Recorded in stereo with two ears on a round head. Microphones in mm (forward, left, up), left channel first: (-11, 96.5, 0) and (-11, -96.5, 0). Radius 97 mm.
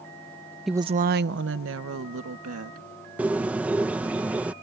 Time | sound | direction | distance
0.7 | a woman speaking | centre (ahead or behind) | ?
3.2 | a bird | 5° right (ahead or behind) | ?